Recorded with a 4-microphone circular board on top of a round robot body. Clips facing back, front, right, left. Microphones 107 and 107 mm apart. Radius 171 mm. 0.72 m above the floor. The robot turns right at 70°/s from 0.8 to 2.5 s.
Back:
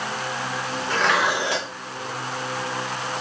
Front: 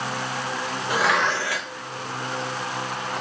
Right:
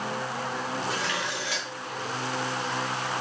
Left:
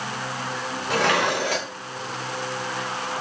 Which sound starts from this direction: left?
Dishes clattering, at 0.9 s.